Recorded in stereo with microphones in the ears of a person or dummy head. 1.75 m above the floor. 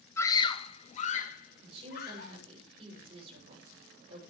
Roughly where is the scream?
Centre.